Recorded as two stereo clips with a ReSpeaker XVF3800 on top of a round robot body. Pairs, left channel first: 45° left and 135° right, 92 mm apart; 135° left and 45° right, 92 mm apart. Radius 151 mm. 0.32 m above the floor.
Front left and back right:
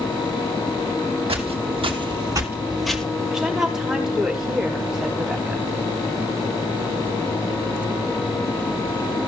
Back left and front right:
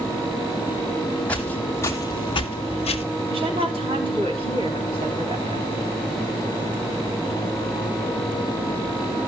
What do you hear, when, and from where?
1.3 s footsteps: 150° right, 1.3 m; by 3.0 s 125° left, 0.8 m
3.3 s a woman speaking: 50° right, 3.5 m